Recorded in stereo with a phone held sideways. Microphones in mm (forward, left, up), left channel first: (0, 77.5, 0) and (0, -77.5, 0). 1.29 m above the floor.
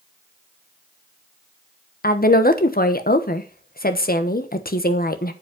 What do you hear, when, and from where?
2.0 s a woman speaking: 70° left (ahead or behind), 1.1 m